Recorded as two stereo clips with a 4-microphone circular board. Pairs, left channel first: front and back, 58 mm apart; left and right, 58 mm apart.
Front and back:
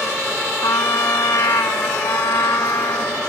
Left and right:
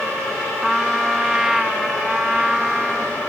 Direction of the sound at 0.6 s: 10° right.